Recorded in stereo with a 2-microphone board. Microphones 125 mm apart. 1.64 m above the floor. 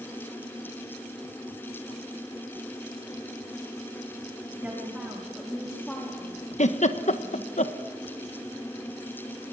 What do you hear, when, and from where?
4.5 s a woman speaking: 15° right (ahead or behind), 5 m; by 7.5 s 45° left (ahead or behind), 4 m
6.6 s a giggle: 70° left (ahead or behind), 1.3 m